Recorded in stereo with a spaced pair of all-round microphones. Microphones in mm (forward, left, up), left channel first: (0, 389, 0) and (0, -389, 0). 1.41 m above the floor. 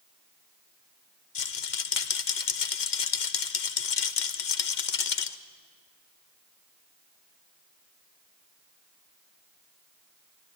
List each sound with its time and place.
1.4 s a rattle: 70° left (ahead or behind), 0.9 m